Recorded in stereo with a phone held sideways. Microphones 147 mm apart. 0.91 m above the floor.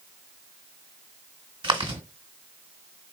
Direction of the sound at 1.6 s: 30° right (ahead or behind).